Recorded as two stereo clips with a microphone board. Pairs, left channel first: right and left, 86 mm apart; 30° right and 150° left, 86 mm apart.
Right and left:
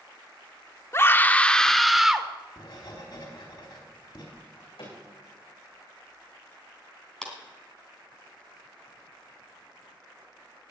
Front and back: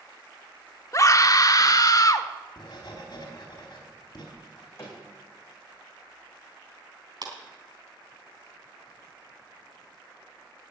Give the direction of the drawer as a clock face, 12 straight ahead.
3 o'clock.